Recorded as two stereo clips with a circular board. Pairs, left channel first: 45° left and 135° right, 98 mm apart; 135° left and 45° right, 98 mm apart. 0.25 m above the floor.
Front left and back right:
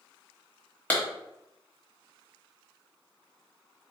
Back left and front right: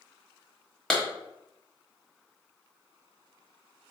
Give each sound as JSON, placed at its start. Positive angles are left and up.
{"t": 0.9, "sound": "a clap", "azimuth_deg": 65, "distance_m": 1.3}